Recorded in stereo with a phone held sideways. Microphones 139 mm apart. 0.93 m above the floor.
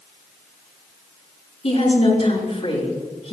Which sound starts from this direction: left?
A woman speaking, at 1.6 s.